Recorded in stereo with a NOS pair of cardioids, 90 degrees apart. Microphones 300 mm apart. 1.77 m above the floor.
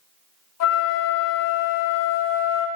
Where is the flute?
55° left, 0.6 m.